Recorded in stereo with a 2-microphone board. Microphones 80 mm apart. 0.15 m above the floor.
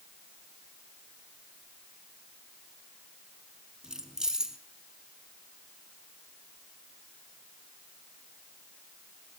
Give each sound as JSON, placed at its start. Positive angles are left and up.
{"t": 3.8, "sound": "keys jangling", "side_deg": -5, "distance_m": 0.9}